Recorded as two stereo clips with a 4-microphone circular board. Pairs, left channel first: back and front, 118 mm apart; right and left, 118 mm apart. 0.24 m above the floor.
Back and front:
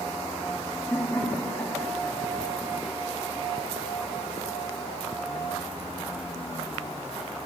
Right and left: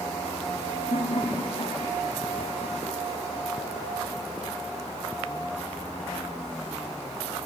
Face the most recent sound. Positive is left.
turn(degrees=-100)